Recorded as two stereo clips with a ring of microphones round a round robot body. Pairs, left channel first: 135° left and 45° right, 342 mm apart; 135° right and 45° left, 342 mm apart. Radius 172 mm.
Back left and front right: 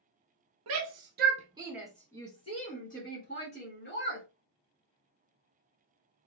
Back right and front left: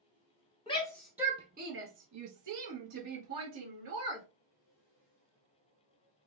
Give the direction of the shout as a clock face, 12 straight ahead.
2 o'clock.